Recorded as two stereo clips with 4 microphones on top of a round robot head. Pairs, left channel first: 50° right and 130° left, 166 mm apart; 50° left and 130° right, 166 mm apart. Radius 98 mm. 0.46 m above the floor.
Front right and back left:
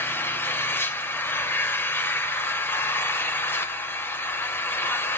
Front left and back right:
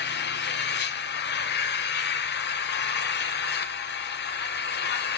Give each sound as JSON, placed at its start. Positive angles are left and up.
{"t": 0.0, "sound": "an engine running", "azimuth_deg": 30, "distance_m": 0.8}